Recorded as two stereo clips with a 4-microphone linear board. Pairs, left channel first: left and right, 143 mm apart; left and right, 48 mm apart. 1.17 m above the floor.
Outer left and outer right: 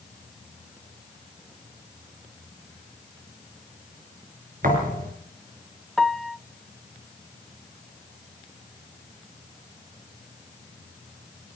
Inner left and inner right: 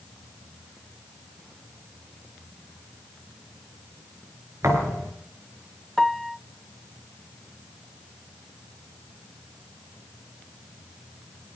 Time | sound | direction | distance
4.6 | a thud | 75° right (ahead or behind) | 5 m
6.0 | a piano | centre (ahead or behind) | 0.6 m